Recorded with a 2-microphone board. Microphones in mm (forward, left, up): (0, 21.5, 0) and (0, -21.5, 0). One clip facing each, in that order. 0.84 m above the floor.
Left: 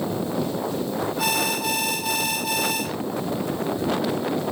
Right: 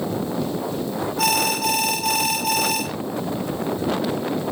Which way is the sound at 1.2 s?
85° right.